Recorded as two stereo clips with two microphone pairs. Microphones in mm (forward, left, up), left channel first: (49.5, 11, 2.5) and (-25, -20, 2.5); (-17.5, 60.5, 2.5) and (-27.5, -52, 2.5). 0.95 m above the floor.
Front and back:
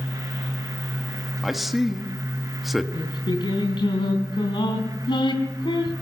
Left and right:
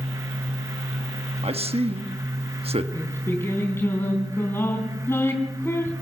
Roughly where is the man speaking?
Right.